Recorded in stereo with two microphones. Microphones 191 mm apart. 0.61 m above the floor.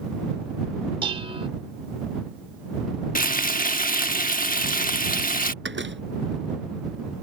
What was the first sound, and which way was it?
Dishes clattering, 25° right (ahead or behind).